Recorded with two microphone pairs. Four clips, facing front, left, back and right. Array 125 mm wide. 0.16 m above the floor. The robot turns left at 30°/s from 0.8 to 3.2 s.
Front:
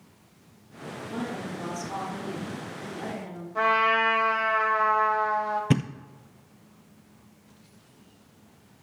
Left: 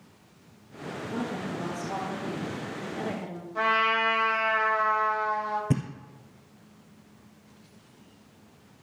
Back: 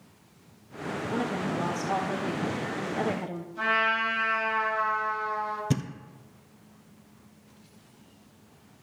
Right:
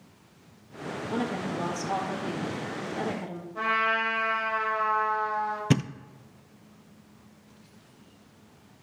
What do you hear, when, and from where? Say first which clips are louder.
1.1 s a woman speaking: right 3 dB, back 3 dB; 115° right, 3 m; by 3.5 s straight behind, 3 m
3.5 s a trumpet: left 2 dB, front 5 dB; 25° left, 8 m
5.7 s a thud: right 3 dB, front 6 dB; 75° right, 0.6 m